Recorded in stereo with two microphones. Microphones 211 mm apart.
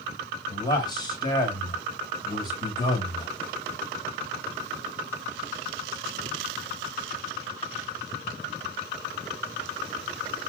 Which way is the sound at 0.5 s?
20° left (ahead or behind).